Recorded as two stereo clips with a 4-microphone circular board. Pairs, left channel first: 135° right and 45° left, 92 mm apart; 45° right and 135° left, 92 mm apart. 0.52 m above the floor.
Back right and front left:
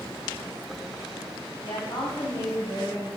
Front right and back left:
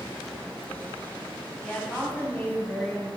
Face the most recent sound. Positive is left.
turn(degrees=-110)